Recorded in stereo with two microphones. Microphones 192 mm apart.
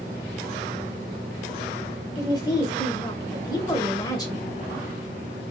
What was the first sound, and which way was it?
A woman speaking, 20° left (ahead or behind).